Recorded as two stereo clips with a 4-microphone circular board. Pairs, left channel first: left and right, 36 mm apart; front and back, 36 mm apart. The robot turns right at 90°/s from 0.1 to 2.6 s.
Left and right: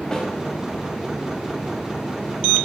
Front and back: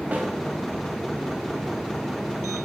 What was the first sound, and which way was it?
A snare drum, 160° left.